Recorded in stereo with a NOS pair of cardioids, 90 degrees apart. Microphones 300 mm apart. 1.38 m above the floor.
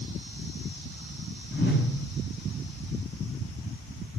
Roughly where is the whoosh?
Ahead left.